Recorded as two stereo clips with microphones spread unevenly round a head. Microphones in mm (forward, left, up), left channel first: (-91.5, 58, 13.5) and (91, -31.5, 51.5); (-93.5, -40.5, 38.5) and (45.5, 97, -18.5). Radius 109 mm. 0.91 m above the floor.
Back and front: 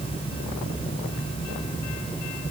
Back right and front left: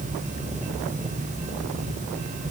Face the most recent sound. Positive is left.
No sound to turn to.